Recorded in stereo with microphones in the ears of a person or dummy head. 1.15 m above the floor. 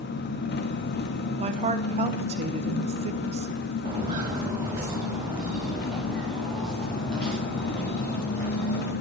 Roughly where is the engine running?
Left.